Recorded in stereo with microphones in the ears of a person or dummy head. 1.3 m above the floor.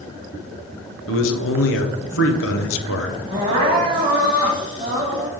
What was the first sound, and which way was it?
A man speaking, 65° left (ahead or behind).